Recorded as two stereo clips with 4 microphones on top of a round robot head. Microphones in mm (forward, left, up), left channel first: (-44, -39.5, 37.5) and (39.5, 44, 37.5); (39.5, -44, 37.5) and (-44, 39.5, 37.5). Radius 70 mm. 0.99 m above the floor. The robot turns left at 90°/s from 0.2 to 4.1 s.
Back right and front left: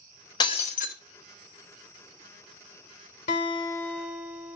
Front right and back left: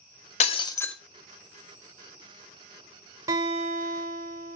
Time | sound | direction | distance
0.4 | breaking glass | 75° right | 0.8 m
3.3 | a guitar | 160° right | 1.4 m